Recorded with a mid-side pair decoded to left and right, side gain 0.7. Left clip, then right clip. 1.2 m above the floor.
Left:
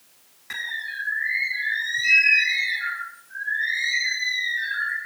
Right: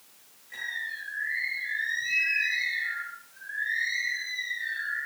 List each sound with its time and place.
0.5 s a bird: 65° left, 6.5 m